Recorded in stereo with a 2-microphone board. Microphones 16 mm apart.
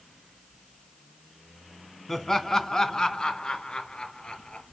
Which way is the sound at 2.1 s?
15° left (ahead or behind).